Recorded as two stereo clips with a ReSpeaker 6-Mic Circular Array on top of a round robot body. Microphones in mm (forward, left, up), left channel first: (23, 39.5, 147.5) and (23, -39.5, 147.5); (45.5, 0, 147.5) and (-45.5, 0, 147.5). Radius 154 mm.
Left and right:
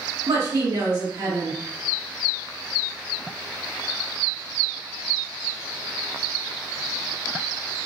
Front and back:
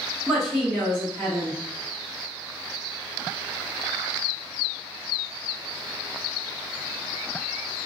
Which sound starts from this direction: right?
A woman speaking, at 0.3 s.